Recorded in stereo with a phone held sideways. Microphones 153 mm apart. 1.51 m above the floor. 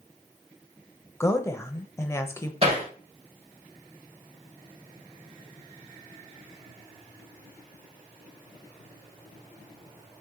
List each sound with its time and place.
1.2 s a woman speaking: 20° left (ahead or behind), 0.7 m
2.6 s hammering: 40° right (ahead or behind), 1.7 m